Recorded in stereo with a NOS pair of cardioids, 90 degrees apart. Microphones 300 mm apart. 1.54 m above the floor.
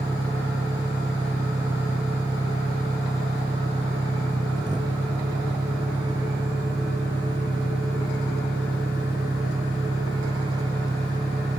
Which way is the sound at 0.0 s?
15° right.